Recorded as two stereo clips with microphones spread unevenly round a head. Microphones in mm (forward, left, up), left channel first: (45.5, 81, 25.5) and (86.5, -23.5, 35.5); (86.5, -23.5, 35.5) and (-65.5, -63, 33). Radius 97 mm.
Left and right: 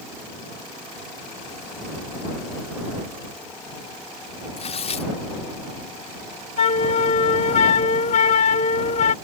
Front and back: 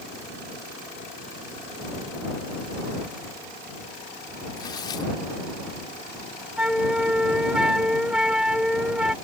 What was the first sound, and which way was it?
Tearing paper, 85° left.